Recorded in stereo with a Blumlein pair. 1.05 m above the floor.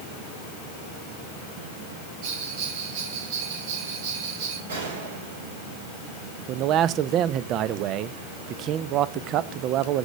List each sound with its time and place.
2.2 s a bell: 45° right, 7 m
4.7 s a gunshot: 65° right, 4.5 m
6.5 s a man speaking: 35° right, 0.7 m